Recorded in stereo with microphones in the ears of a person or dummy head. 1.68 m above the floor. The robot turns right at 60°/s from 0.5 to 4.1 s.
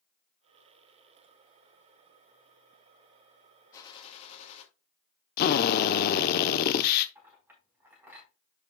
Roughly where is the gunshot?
Left.